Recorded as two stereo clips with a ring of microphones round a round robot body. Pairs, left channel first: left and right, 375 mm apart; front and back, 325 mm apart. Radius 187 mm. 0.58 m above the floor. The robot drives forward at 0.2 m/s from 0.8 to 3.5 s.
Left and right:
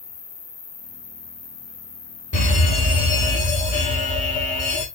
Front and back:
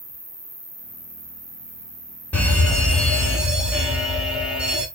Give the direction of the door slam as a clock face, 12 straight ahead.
No door slam in this recording.